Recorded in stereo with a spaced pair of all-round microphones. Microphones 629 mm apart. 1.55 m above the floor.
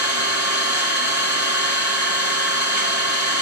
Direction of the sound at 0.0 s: 65° left (ahead or behind).